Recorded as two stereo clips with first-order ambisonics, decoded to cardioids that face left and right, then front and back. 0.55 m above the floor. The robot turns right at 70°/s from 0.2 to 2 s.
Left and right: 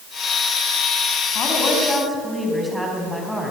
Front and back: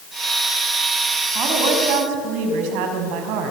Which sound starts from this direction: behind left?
A woman speaking, at 1.4 s.